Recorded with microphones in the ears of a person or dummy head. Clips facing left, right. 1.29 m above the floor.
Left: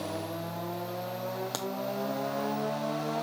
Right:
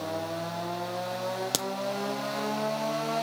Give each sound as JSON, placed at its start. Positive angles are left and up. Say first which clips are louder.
{"t": 1.5, "sound": "a crack", "louder": "right 3 dB", "side_deg": -35, "distance_m": 0.6}